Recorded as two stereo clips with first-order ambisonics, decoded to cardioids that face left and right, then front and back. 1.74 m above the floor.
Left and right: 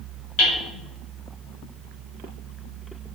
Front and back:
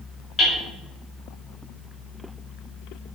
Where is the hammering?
75° left, 4 m.